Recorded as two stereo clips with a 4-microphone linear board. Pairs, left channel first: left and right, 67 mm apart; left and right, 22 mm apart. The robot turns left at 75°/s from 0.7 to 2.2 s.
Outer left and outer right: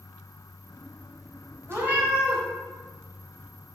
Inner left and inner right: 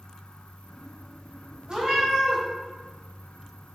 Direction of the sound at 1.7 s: 140° right.